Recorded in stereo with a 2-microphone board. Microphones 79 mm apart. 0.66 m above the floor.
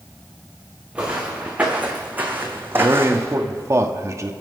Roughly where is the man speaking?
Right.